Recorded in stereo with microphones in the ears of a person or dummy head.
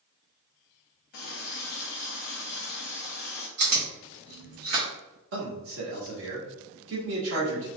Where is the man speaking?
65° right (ahead or behind), 1.4 m.